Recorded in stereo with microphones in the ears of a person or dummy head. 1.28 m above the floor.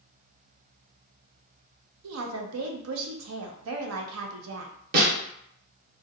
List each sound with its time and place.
2.0 s a woman speaking: 70° right (ahead or behind), 0.6 m
4.9 s a snare drum: 55° right (ahead or behind), 1.0 m